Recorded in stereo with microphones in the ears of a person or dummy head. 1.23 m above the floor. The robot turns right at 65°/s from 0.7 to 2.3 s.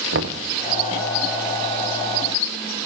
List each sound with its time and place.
0.1 s knocking: 55° right (ahead or behind), 0.7 m